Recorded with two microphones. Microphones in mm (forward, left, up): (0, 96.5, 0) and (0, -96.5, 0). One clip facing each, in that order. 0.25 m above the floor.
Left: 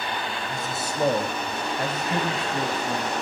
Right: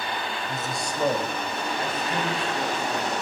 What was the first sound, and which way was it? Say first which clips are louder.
A man speaking: even; 5° right (ahead or behind).